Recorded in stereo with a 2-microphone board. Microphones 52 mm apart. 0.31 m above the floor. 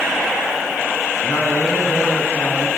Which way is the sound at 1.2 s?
65° left (ahead or behind).